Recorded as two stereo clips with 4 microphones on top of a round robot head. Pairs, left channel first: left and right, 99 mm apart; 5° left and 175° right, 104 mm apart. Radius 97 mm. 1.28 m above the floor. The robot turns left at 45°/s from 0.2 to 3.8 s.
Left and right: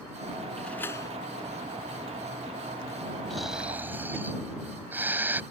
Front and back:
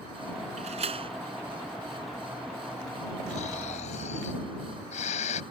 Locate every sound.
0.6 s a door slam: 175° left; by 1.1 s 150° left
3.3 s snoring: 5° left; by 5.4 s 20° right